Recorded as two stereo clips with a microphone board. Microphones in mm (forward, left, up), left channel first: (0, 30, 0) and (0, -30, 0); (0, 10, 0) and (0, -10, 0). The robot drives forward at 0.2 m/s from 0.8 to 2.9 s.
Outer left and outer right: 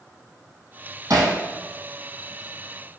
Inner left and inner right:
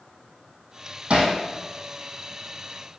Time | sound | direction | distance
1.1 | hammering | 75° right (ahead or behind) | 2.0 m